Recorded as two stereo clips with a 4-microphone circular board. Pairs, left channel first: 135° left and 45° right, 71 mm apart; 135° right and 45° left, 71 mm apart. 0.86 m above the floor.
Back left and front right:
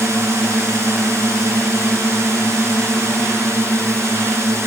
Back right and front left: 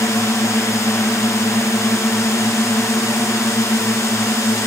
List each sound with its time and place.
0.0 s a drone: 95° right